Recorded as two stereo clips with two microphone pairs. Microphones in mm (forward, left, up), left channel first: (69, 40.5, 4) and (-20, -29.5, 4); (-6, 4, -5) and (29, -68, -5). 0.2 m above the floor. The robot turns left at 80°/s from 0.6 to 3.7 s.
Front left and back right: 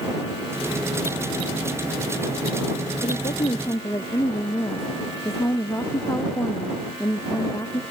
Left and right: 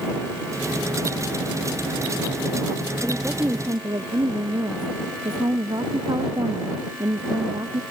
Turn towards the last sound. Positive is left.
turn(degrees=-25)